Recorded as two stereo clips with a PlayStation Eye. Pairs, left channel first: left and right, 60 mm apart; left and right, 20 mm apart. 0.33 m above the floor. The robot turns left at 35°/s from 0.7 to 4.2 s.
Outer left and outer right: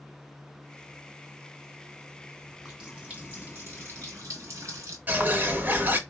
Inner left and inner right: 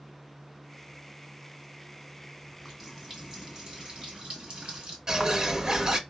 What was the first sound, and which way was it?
A running tap, straight ahead.